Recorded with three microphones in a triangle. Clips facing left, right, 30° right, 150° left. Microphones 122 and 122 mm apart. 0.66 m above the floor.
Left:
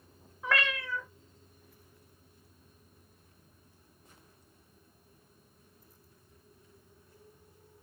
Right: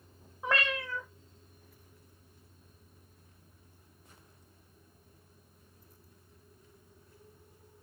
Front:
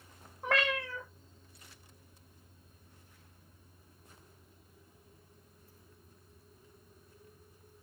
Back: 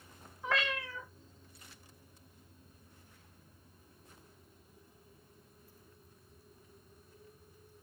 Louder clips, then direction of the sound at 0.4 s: Even, front 3 dB; 25° right.